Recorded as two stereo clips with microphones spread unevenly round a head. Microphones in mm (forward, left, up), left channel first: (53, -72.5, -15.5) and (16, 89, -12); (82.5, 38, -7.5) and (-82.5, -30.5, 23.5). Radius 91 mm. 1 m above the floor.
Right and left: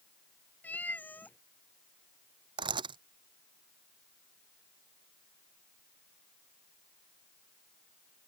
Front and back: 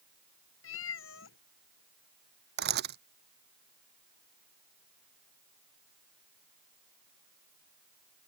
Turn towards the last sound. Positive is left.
turn(degrees=170)